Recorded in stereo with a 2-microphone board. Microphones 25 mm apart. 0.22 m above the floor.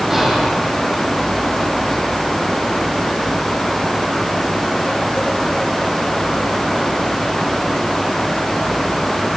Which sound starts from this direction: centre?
Whispering, at 0.1 s.